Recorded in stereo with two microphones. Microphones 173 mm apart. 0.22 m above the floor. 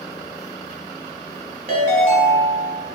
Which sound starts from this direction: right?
A ringtone, at 1.7 s.